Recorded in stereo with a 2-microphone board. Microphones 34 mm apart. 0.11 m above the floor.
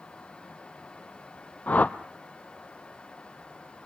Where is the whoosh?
50° left (ahead or behind), 0.6 m.